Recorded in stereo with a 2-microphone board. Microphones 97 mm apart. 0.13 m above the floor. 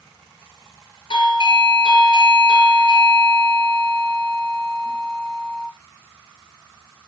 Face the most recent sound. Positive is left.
turn(degrees=55)  # may be behind; listen again after turning